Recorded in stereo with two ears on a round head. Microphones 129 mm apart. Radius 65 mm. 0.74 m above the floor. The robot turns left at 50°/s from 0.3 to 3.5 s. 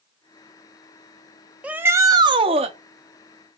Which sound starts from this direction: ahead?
A shout, at 1.6 s.